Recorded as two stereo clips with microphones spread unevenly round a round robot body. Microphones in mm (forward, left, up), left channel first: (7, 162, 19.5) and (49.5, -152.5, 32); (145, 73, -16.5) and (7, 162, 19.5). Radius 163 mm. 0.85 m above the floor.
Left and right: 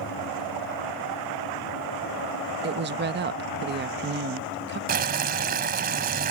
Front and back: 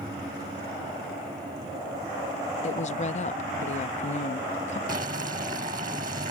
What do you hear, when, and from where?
2.6 s a woman speaking: 30° right
4.9 s boiling: 145° right